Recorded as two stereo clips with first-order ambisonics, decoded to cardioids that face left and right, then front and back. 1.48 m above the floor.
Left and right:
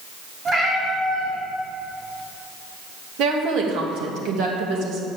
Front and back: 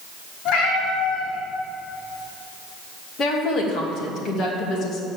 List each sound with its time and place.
0.5 s a cat meowing: 30° right, 4 m
3.2 s a woman speaking: 55° right, 2.5 m